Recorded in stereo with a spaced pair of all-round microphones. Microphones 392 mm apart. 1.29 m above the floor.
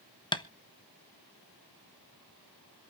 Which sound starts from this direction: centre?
Tapping, at 0.3 s.